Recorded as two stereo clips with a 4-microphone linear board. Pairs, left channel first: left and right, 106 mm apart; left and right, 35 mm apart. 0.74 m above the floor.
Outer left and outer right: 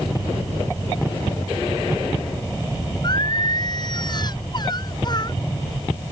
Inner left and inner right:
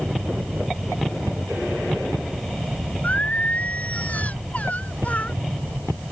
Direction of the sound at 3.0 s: 45° left (ahead or behind).